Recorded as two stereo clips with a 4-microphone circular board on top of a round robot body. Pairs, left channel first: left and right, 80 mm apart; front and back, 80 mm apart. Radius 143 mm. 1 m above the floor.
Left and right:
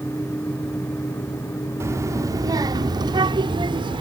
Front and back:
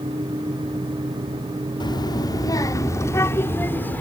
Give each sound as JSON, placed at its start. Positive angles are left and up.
{"t": 1.8, "sound": "a child speaking", "azimuth_deg": -30}